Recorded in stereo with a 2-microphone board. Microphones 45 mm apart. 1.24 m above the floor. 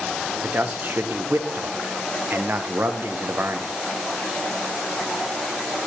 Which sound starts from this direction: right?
A man speaking, at 0.4 s.